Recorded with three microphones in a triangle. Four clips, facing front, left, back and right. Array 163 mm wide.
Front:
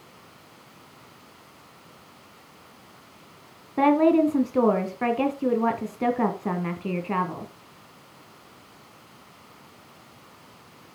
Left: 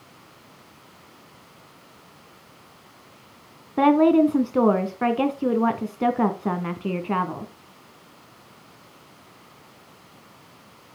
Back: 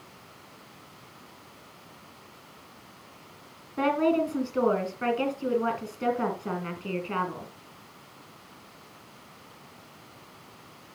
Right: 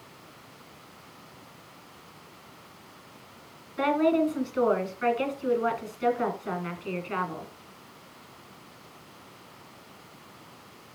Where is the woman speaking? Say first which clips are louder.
Left 7 dB, front 6 dB; 70° left, 2.5 m.